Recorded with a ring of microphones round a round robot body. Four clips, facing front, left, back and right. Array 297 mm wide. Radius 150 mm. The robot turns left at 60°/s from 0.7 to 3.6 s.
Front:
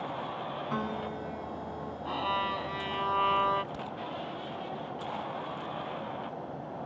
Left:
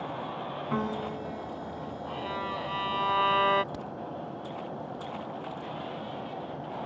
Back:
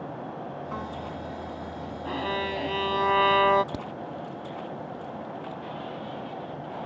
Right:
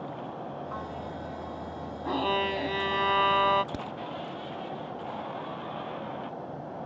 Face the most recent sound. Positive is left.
turn(degrees=-155)